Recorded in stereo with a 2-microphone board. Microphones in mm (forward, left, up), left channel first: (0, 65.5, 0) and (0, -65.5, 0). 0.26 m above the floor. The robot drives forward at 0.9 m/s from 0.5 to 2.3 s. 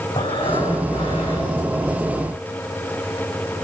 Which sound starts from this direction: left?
Breathing, at 0.1 s.